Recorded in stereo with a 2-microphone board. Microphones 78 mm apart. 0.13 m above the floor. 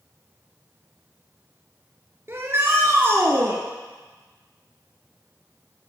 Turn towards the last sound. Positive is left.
turn(degrees=-35)  # may be behind; listen again after turning